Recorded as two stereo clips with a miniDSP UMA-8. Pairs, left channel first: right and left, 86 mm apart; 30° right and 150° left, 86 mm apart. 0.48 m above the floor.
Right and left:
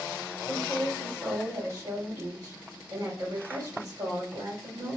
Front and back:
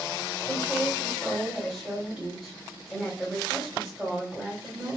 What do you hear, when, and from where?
0.5 s a woman speaking: 60° left, 2.5 m